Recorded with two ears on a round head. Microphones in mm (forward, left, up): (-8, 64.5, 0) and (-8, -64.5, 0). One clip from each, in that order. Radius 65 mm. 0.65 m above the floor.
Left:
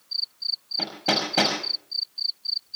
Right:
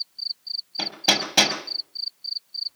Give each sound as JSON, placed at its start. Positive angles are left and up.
{"t": 0.8, "sound": "hammering", "side_deg": -75, "distance_m": 5.5}